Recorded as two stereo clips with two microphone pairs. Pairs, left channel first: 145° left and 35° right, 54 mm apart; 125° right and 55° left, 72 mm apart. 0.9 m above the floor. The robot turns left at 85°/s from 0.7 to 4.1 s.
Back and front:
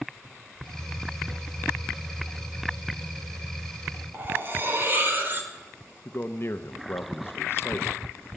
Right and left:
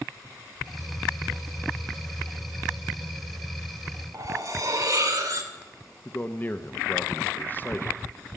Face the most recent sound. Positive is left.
turn(degrees=180)